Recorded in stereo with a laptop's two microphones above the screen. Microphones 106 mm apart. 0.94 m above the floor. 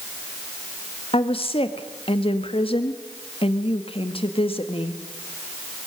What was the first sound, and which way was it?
A woman speaking, 60° left (ahead or behind).